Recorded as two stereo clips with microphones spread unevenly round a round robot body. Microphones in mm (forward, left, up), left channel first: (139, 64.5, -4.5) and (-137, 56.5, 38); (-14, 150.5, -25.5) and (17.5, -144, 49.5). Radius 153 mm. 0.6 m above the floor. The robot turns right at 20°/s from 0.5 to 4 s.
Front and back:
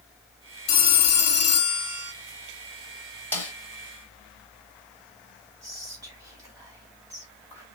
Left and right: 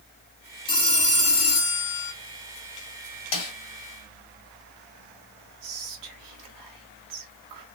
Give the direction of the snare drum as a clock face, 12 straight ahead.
9 o'clock.